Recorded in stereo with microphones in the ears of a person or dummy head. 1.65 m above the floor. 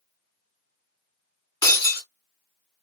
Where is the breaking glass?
20° left (ahead or behind), 2.5 m.